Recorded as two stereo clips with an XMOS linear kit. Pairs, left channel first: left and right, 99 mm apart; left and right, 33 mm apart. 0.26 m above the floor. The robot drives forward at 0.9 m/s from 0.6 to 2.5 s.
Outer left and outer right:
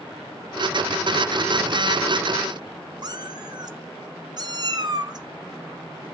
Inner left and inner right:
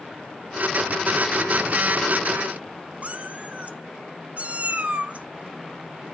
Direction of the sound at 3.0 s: 45° right (ahead or behind).